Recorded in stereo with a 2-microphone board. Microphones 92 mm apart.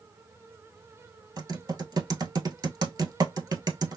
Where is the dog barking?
I don't hear a dog barking.